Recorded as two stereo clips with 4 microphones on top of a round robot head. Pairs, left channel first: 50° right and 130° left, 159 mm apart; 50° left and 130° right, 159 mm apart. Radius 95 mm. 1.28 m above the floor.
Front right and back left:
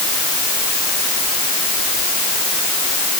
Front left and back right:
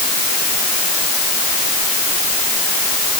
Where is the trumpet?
No trumpet in this recording.